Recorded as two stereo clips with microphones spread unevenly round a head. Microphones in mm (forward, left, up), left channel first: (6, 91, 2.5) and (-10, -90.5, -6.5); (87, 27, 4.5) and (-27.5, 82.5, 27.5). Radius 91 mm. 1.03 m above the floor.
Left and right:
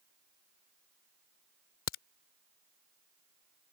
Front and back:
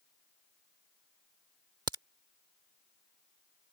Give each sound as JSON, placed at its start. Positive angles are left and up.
{"t": 1.9, "sound": "a crack", "azimuth_deg": 100}